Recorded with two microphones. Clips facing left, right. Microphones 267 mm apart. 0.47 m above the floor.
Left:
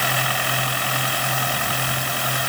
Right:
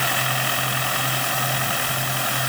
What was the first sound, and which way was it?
Only background noise.